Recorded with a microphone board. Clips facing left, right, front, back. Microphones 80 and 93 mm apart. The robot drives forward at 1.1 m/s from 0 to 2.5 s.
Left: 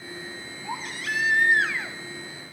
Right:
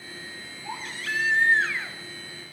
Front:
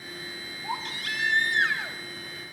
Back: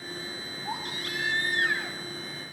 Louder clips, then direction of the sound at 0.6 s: Left 2 dB, front 3 dB; 5° left.